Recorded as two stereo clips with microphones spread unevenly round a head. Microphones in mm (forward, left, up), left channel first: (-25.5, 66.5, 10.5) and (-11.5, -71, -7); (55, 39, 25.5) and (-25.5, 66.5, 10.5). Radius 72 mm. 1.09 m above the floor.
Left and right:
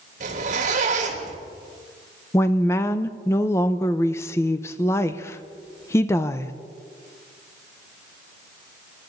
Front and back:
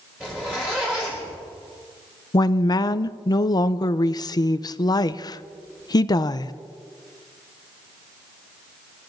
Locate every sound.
0.2 s a zipper: 115° right, 3 m
2.3 s a woman speaking: 20° left, 0.6 m